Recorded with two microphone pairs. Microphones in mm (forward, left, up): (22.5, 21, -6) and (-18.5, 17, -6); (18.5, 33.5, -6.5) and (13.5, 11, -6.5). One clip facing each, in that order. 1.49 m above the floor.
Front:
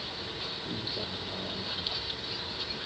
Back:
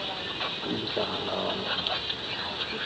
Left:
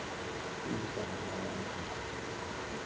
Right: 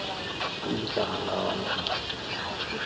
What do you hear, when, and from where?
0.0 s a vehicle: 130° right; by 2.9 s 125° right